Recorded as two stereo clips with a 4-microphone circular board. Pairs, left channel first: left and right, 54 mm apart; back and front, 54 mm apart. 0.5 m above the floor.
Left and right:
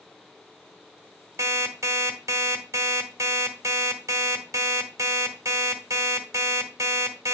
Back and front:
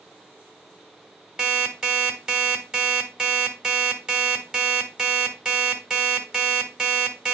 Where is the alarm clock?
75° right, 1.6 m.